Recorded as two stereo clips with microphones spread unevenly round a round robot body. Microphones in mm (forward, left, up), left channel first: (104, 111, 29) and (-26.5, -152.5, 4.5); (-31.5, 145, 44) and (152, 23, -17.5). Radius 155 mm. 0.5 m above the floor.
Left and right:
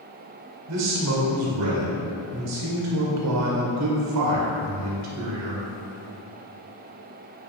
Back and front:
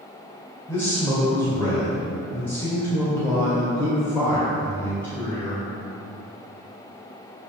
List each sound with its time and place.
0.7 s a man speaking: 125° right, 2 m